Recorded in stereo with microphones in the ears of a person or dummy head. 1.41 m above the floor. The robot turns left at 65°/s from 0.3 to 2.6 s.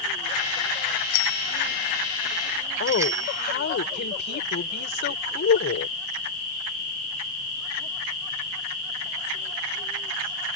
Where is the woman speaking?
60° left (ahead or behind).